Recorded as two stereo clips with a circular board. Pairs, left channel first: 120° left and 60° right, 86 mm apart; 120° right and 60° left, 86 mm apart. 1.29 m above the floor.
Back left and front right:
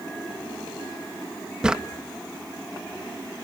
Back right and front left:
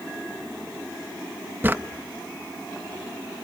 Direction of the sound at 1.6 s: 15° left.